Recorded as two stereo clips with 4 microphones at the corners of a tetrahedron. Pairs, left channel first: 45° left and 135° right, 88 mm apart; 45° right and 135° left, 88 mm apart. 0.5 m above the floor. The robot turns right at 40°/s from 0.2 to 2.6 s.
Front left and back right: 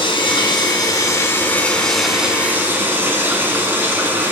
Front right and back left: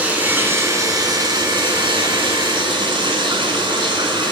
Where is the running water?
60° left, 2 m; by 4.3 s 155° left, 2 m.